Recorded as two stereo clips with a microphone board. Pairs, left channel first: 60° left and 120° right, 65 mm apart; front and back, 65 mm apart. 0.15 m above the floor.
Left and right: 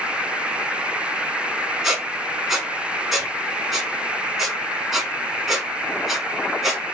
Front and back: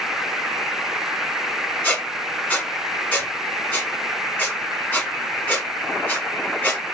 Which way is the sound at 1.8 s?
35° right.